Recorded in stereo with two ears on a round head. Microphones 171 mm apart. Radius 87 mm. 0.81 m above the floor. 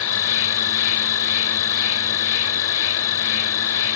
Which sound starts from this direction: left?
An insect, at 0.0 s.